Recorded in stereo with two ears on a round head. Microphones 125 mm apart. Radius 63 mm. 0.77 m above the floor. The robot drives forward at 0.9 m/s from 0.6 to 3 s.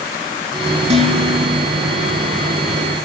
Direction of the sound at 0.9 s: 45° right (ahead or behind).